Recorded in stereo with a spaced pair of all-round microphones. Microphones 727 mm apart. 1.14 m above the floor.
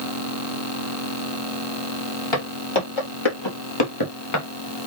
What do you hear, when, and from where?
2.3 s footsteps: 45° left (ahead or behind), 2.5 m; by 4.5 s 25° left (ahead or behind), 1.2 m